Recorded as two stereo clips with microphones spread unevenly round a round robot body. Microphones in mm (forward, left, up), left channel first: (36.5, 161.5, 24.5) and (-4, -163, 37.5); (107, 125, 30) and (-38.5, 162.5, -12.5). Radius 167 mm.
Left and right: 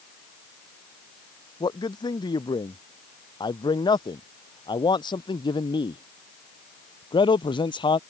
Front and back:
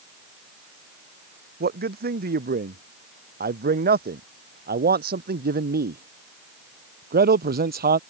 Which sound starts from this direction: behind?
A man speaking, at 1.6 s.